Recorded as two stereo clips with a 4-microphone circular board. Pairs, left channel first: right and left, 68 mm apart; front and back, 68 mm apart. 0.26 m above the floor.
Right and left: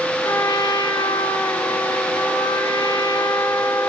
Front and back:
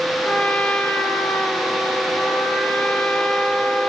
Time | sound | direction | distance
0.2 | a trumpet | 70° right | 1.1 m